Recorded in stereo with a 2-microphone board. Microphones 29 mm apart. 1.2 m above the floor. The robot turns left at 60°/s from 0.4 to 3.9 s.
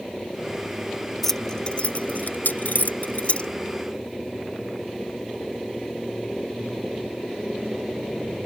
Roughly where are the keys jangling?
Centre.